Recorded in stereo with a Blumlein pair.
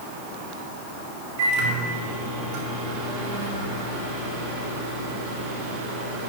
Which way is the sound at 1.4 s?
45° right.